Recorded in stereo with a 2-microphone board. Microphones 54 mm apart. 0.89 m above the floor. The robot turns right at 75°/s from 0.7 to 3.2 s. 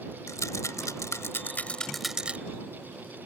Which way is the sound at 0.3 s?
80° left.